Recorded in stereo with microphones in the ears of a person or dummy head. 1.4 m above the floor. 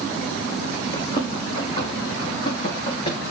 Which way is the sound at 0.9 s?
30° left (ahead or behind).